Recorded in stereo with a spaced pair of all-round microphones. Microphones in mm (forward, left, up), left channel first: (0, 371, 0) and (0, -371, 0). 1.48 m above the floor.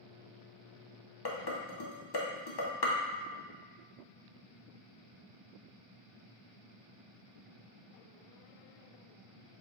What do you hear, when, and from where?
1.2 s dishes clattering: 40° left (ahead or behind), 0.5 m